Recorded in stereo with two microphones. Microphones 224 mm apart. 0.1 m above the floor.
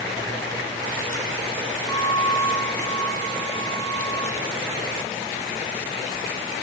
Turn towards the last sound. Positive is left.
turn(degrees=10)  # may be behind; listen again after turning